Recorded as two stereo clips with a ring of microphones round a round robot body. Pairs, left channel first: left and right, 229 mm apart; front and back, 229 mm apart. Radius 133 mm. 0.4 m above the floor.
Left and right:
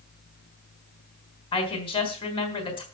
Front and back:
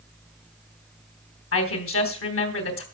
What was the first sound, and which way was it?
A woman speaking, 20° left.